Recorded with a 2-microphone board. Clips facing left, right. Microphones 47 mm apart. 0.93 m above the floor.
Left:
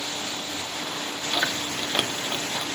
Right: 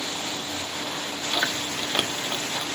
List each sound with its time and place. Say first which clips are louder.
1.3 s chewing: even; 5° left (ahead or behind), 1.5 m